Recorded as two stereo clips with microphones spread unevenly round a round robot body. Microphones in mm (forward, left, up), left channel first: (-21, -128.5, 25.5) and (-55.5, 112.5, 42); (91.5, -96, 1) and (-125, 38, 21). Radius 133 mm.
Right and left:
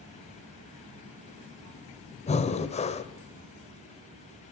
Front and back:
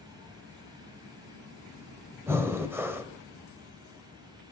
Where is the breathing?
130° right, 1.0 m.